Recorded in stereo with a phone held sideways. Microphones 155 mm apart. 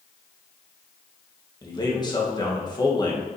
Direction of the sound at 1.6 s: 25° left (ahead or behind).